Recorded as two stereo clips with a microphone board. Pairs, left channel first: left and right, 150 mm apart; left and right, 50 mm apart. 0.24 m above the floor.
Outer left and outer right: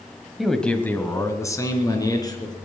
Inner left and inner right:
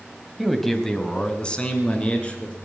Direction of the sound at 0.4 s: Centre (ahead or behind).